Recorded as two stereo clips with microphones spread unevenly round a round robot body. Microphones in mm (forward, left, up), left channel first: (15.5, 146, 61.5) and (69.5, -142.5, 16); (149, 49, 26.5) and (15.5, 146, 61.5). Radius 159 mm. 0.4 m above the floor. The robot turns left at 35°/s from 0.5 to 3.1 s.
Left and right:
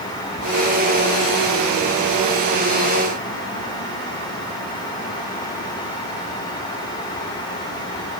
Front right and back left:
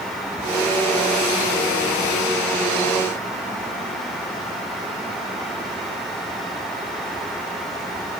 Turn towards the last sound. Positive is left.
No sound to turn to.